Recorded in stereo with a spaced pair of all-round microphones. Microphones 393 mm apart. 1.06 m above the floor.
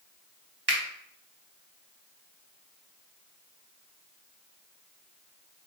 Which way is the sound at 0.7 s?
75° right (ahead or behind).